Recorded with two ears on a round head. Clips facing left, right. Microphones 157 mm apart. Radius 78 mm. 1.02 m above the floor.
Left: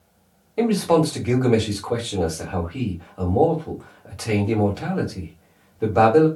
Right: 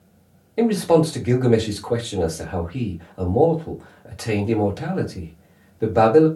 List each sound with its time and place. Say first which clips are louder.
0.6 s a man speaking: right 2 dB; 10° right (ahead or behind), 1.1 m